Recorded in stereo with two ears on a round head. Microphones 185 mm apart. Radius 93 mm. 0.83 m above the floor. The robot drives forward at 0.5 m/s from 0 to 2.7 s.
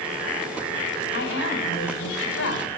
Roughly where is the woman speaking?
Left.